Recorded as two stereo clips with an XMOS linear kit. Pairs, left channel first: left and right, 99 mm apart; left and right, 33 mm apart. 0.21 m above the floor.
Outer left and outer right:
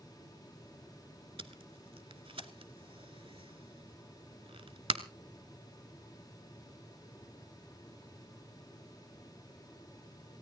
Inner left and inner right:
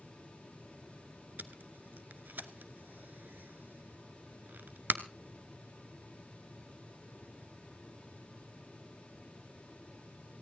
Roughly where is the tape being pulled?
Right.